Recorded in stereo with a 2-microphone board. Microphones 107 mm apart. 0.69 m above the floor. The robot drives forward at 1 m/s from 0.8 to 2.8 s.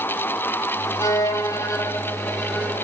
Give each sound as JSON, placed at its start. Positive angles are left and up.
{"t": 1.0, "sound": "a violin", "side_deg": 30, "distance_m": 0.9}